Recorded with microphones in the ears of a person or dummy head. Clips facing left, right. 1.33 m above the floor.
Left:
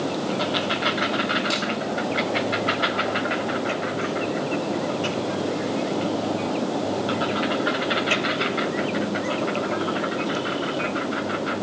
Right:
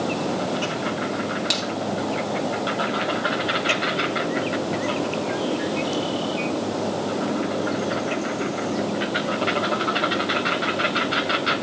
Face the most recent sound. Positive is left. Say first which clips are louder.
# left 1 dB
turn(degrees=-20)  # may be behind; listen again after turning